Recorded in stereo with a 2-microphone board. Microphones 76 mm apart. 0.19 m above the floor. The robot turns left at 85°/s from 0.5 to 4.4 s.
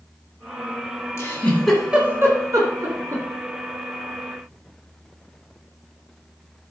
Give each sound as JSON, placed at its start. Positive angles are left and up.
{"t": 1.2, "sound": "a giggle", "side_deg": 35, "distance_m": 2.0}